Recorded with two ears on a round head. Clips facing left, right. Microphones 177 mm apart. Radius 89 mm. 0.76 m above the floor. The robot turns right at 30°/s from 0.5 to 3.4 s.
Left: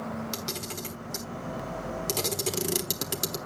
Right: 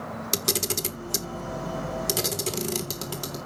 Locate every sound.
0.3 s a camera shutter: 60° right (ahead or behind), 1.2 m; by 3.4 s 25° left (ahead or behind), 1.2 m